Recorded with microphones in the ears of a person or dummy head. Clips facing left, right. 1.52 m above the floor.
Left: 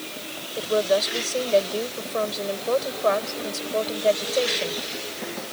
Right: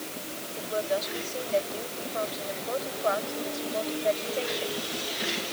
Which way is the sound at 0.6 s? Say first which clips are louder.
Left 8 dB; 70° left (ahead or behind).